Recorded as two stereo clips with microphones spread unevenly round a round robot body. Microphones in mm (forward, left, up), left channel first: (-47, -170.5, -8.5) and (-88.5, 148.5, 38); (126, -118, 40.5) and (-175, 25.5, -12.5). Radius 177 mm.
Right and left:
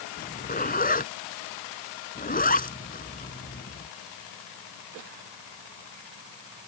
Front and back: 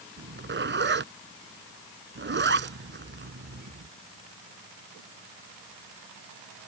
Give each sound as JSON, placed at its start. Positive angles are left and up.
{"t": 0.2, "sound": "a zipper", "azimuth_deg": -150}